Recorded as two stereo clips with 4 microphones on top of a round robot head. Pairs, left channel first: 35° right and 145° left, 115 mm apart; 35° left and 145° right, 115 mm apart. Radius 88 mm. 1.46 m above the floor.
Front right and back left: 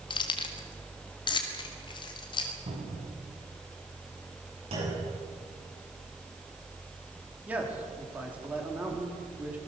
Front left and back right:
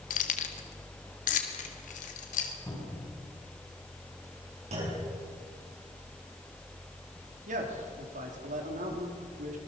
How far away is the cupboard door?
About 9 m.